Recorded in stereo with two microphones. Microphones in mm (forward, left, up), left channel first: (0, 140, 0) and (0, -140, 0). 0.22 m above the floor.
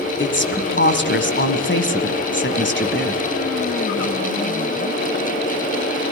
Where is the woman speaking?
40° left (ahead or behind), 1.6 m.